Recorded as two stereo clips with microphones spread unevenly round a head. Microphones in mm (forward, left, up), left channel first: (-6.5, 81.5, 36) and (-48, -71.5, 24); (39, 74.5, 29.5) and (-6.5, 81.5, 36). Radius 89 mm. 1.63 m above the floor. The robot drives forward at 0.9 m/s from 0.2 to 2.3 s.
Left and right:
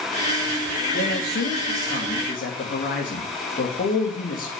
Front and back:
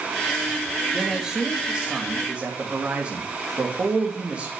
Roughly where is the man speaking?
Left.